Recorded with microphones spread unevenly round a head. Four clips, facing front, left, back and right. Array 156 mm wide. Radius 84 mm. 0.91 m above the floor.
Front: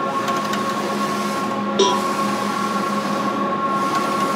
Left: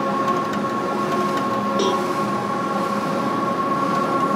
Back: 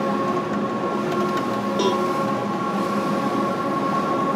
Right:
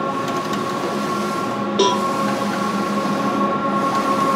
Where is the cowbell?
50° right, 0.8 m.